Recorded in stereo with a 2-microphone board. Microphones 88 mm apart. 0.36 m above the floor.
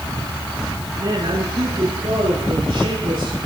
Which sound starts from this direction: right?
A woman speaking, at 1.0 s.